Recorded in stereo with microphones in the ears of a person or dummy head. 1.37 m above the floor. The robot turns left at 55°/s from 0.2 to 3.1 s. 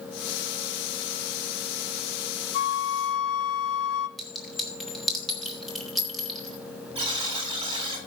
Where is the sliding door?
No sliding door in this recording.